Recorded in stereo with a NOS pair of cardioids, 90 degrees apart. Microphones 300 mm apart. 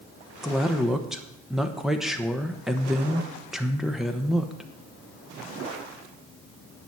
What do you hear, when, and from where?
0.4 s a man speaking: straight ahead, 1.0 m